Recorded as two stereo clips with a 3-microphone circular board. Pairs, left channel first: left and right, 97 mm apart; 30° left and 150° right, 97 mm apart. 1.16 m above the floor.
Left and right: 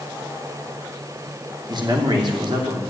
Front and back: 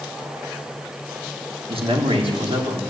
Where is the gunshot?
I don't hear a gunshot.